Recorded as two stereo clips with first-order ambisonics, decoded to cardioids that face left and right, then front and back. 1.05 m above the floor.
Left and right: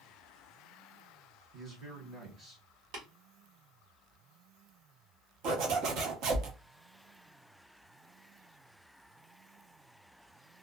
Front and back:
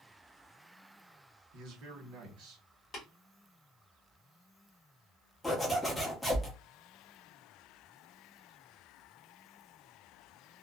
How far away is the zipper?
About 0.6 m.